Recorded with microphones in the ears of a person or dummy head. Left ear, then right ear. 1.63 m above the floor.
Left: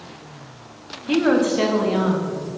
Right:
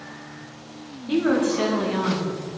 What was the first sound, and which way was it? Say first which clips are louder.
A woman speaking: left 3 dB; 15° left (ahead or behind).